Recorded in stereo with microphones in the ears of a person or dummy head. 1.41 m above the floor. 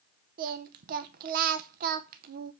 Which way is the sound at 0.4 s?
50° right (ahead or behind).